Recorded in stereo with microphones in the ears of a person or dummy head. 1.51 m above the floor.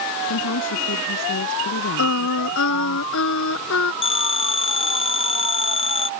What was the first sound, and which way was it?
A woman speaking, 60° left (ahead or behind).